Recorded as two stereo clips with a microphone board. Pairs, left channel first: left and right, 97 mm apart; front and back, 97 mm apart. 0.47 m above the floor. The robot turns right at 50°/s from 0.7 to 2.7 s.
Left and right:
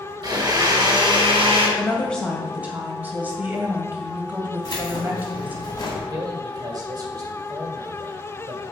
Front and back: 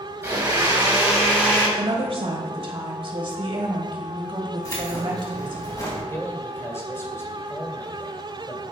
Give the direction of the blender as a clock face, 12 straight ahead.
4 o'clock.